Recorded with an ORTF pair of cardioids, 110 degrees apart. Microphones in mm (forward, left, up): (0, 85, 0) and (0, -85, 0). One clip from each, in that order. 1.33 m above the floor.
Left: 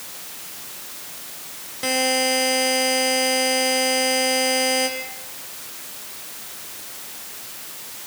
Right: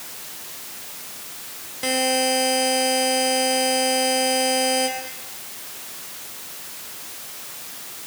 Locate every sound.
1.8 s a buzzer: straight ahead, 3 m